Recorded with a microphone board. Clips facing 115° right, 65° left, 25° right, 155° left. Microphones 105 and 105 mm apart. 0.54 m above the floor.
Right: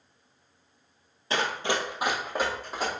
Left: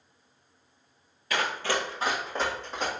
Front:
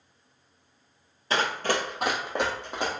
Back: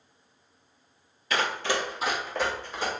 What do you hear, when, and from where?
1.3 s running footsteps: 65° right, 0.7 m; by 2.9 s 30° right, 1.7 m